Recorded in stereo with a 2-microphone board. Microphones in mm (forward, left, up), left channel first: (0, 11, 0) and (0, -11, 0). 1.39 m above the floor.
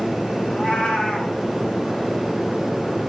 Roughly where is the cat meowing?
Left.